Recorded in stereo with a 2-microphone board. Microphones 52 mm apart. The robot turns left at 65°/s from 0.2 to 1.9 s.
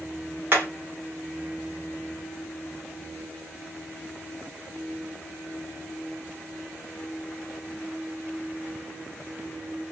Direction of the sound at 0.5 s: 40° right (ahead or behind).